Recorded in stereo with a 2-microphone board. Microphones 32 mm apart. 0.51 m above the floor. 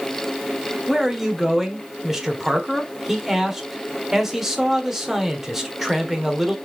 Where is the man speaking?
5° right (ahead or behind), 1.3 m.